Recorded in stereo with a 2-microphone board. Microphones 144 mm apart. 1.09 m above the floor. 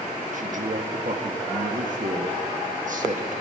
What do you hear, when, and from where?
0.3 s a man speaking: 60° right (ahead or behind), 1.9 m